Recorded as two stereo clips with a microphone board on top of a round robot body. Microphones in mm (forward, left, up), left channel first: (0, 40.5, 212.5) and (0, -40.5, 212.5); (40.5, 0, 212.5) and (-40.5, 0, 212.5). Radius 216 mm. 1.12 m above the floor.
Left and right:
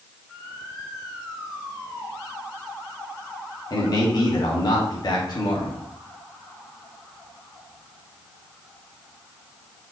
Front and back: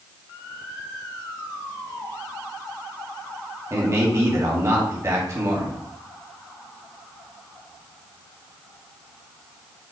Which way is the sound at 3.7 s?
125° left.